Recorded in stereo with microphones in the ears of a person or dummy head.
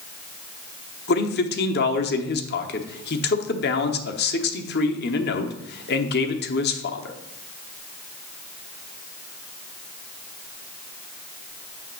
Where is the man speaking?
50° left (ahead or behind), 1.0 m.